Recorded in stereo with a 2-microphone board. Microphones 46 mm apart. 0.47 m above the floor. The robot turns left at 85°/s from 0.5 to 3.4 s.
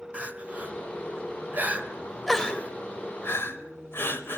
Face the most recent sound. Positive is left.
turn(degrees=60)  # may be behind; listen again after turning